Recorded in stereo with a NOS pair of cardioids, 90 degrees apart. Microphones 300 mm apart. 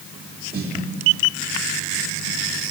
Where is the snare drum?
30° right, 3.5 m.